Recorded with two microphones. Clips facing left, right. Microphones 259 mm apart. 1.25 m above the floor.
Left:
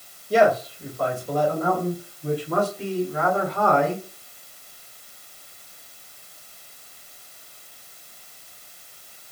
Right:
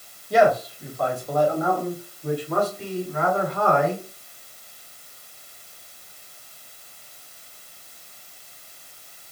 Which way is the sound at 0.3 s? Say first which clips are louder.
Even; 30° left (ahead or behind).